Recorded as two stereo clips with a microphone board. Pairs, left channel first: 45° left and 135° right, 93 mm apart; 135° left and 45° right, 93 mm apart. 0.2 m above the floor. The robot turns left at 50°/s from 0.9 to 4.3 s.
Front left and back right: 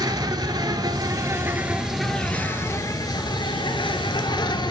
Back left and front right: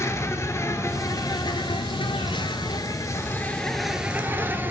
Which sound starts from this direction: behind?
An insect, at 0.0 s.